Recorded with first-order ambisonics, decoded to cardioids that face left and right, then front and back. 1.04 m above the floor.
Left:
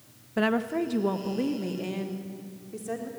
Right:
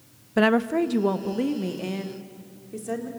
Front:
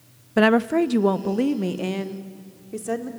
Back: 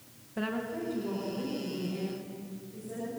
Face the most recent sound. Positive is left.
turn(degrees=-10)